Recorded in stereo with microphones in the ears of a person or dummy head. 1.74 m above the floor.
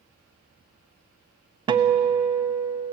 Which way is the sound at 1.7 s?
25° right (ahead or behind).